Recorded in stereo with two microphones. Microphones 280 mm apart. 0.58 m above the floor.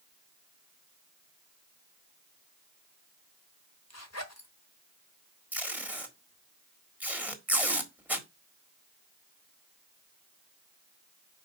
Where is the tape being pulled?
5° right (ahead or behind), 1.5 m.